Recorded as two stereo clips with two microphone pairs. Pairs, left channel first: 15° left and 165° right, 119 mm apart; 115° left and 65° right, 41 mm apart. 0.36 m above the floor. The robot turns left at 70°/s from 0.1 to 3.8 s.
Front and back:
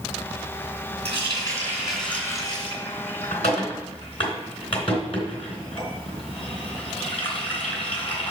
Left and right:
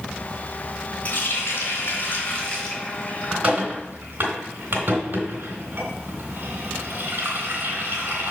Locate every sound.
1.1 s a running tap: 170° left, 2.5 m; by 8.3 s 25° right, 2.5 m